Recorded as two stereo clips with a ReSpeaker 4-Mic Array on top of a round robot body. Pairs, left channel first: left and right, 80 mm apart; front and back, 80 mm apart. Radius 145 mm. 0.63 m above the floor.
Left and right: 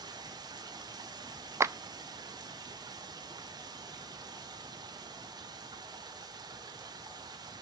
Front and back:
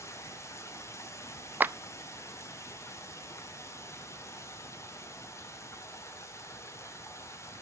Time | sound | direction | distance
0.0 | running water | 55° right | 1.5 m
1.6 | a clap | 125° right | 0.6 m